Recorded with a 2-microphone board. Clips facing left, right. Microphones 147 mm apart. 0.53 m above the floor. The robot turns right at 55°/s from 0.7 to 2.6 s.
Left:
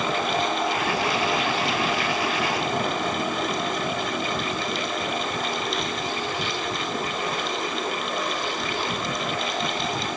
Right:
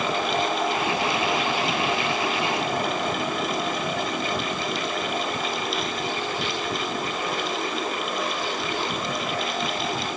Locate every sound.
Only background noise.